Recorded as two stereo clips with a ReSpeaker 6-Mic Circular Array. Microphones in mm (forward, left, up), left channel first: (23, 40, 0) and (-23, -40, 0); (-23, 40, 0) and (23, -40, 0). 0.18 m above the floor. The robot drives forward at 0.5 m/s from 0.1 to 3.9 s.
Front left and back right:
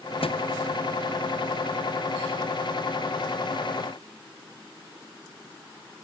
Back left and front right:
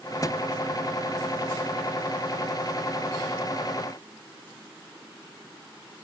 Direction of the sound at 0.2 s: 70° left.